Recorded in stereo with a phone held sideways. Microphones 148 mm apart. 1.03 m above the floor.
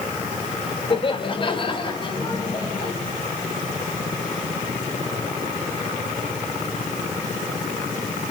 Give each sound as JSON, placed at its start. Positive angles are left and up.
{"t": 0.9, "sound": "laughter", "side_deg": 35, "distance_m": 3.0}